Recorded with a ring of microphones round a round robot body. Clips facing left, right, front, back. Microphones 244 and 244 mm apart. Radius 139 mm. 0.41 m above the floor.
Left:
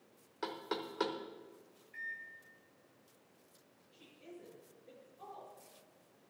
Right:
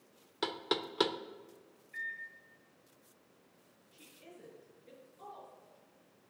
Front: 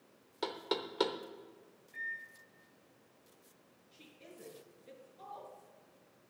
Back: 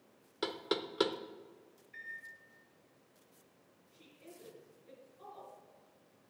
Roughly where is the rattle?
No rattle in this recording.